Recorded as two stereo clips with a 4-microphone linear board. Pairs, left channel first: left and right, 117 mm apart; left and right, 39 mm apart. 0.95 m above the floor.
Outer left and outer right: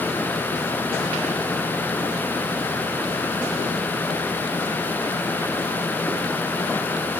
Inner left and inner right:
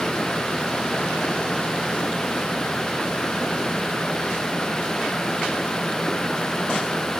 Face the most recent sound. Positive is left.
No sound to turn to.